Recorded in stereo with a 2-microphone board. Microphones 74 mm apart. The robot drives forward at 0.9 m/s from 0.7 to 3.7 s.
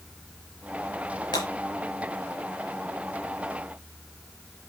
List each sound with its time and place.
1.3 s breaking glass: 80° left, 6.5 m